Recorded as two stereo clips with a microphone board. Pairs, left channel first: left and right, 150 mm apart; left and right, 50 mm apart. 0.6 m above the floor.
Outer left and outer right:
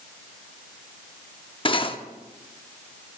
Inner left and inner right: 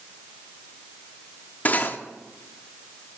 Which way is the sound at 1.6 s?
35° left (ahead or behind).